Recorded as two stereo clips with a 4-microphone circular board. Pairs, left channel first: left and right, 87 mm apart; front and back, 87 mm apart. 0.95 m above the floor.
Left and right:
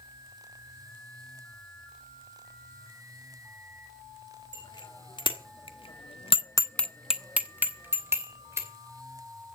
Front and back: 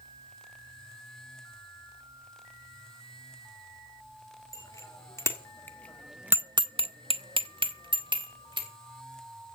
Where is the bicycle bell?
55° left, 2.5 m; by 8.7 s 150° right, 3 m.